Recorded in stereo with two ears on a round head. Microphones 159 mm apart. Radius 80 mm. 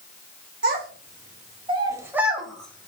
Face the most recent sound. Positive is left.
turn(degrees=15)  # may be behind; listen again after turning